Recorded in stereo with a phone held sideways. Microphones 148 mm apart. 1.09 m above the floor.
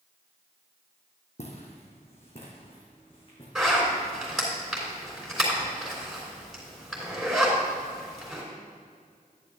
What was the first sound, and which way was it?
Footsteps, 45° left (ahead or behind).